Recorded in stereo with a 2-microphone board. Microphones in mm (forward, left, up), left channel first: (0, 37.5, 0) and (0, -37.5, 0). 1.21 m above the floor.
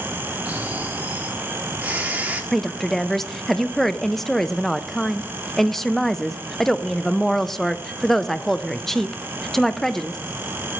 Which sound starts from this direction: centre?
A woman speaking, at 2.5 s.